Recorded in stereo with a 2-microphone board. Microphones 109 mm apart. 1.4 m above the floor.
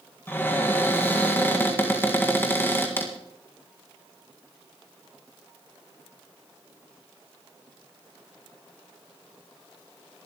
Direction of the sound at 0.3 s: 20° left (ahead or behind).